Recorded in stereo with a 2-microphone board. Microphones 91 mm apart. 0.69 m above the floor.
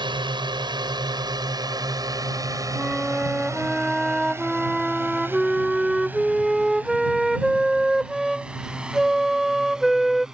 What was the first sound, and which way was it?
A drone, 60° right (ahead or behind).